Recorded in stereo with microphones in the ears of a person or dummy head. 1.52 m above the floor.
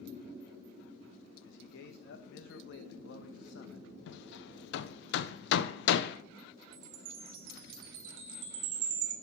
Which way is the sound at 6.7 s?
75° right (ahead or behind).